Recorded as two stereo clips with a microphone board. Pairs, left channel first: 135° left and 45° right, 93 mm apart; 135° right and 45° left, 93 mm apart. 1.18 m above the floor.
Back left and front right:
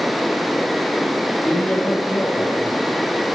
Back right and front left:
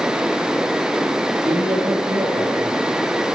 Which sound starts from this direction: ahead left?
A man speaking, at 1.4 s.